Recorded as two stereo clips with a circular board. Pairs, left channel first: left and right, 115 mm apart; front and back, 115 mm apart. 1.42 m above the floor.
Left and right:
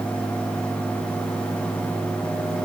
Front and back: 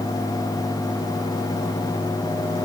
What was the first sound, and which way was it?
Only background noise.